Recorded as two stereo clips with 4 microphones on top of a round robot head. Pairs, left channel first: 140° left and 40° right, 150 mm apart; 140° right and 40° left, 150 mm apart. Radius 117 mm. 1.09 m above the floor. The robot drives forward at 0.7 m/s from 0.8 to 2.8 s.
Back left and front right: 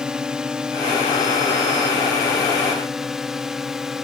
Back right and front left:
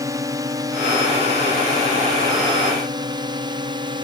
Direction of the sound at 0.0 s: 35° left.